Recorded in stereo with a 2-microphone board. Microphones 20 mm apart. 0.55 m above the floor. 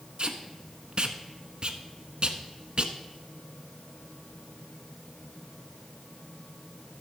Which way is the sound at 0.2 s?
45° right (ahead or behind).